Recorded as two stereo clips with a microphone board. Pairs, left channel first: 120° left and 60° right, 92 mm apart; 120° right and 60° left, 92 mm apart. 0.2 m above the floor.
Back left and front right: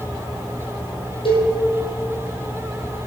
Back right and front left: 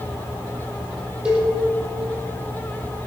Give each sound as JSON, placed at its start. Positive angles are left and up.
{"t": 1.2, "sound": "a cowbell", "azimuth_deg": 140, "distance_m": 4.0}